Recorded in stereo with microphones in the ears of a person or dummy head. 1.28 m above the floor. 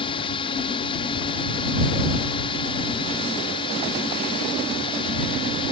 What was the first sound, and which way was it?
A drone, 30° left (ahead or behind).